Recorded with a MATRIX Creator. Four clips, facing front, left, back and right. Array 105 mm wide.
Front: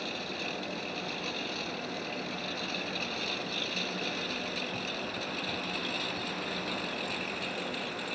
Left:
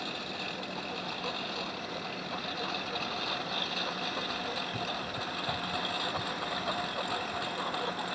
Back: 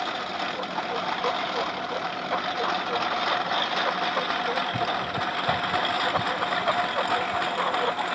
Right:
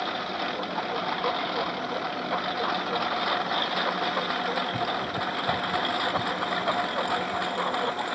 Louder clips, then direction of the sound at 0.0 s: Right 9 dB, back 8 dB; 145° right.